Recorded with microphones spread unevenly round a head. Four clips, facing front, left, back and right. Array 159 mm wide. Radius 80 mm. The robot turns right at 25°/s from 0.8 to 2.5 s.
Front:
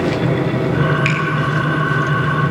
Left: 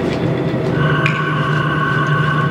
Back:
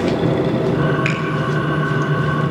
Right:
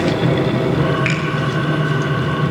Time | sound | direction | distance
1.1 | a finger snap | 100° left | 4 m